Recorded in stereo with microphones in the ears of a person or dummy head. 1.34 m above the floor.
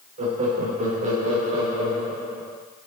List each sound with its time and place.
0.2 s laughter: 35° right (ahead or behind), 2 m